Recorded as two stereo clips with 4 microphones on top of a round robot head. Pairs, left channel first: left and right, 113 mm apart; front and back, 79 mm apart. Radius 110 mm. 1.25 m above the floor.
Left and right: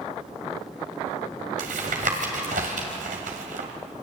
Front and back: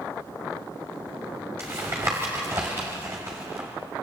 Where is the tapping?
110° right, 2 m.